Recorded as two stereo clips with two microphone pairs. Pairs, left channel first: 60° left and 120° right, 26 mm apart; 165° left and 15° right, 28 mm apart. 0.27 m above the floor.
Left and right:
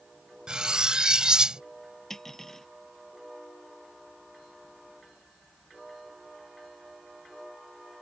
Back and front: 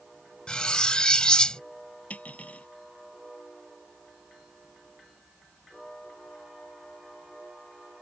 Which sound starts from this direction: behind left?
Cutlery clinking, at 2.1 s.